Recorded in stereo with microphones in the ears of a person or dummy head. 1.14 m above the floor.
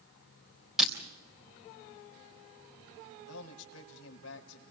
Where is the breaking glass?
Centre (ahead or behind), 3.5 m.